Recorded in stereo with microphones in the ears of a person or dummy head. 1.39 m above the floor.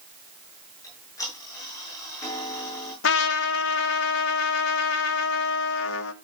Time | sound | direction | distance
0.8 | ticking | 20° left (ahead or behind) | 9.5 m
3.0 | a trumpet | 65° left (ahead or behind) | 1.5 m